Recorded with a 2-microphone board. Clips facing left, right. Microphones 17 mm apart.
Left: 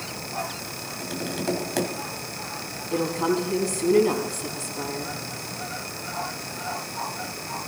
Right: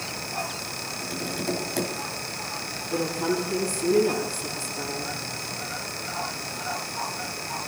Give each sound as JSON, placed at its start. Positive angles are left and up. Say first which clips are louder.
{"t": 1.0, "sound": "tapping", "louder": "left 2 dB", "side_deg": 25, "distance_m": 2.5}
{"t": 2.9, "sound": "a woman speaking", "louder": "left 2 dB", "side_deg": 25, "distance_m": 5.0}